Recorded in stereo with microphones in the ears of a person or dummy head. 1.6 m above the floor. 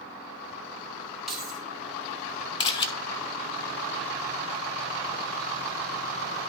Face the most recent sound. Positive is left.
turn(degrees=30)  # may be behind; listen again after turning